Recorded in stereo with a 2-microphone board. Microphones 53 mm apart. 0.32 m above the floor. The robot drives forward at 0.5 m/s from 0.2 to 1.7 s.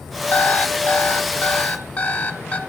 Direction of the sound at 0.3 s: 35° left (ahead or behind).